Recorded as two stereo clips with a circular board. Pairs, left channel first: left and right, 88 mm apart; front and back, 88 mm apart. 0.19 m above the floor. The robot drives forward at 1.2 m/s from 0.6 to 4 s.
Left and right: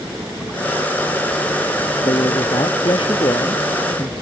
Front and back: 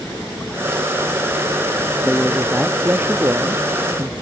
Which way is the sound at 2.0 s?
100° left.